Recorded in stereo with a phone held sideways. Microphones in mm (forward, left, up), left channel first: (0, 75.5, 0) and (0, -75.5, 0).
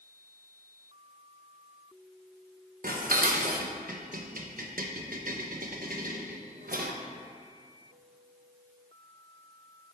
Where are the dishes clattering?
65° right (ahead or behind), 0.8 m.